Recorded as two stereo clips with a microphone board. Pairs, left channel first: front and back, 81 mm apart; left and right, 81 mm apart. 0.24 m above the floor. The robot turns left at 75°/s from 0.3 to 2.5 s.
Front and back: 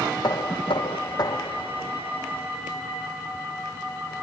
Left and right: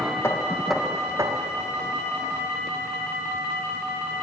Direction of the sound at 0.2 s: 35° left.